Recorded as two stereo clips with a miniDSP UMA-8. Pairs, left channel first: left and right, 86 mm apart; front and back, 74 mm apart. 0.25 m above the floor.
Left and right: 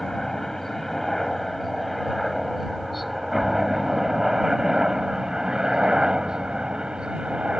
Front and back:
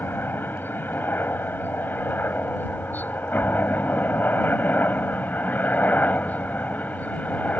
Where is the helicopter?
10° left; by 7.6 s 25° right.